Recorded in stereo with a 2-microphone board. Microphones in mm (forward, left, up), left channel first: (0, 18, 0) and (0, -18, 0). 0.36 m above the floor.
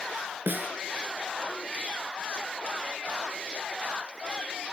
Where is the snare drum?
70° right (ahead or behind), 1.0 m.